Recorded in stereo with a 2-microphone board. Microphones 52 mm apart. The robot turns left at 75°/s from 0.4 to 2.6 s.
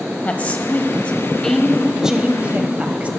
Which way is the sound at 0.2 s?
30° left (ahead or behind).